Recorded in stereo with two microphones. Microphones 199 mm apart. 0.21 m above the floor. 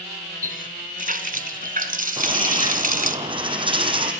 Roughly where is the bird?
Right.